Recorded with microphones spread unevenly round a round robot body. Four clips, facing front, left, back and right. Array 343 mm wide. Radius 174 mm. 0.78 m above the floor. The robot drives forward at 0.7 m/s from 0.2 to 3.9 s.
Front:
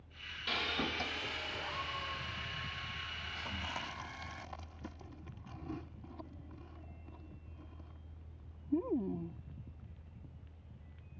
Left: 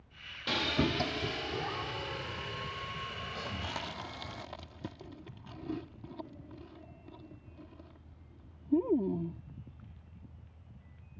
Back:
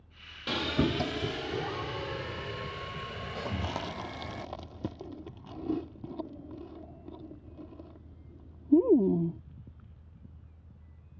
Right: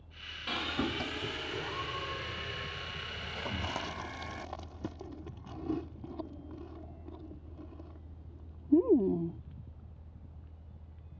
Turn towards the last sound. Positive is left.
turn(degrees=-175)